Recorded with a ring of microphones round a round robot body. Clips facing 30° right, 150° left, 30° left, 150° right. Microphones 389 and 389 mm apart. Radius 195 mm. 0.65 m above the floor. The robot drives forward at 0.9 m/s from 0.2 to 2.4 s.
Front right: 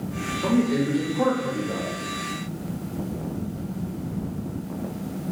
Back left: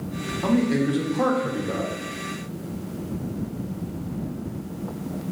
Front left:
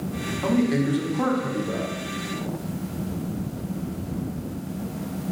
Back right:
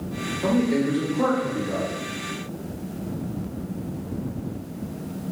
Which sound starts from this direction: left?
A man speaking, at 0.4 s.